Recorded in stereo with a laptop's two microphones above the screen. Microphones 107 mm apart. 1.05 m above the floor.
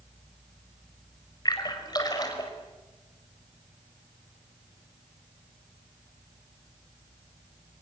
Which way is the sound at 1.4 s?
40° left (ahead or behind).